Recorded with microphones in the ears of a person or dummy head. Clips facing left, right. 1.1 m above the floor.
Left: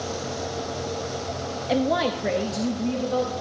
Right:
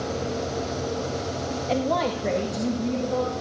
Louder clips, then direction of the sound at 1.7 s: Left 2 dB; 10° left (ahead or behind).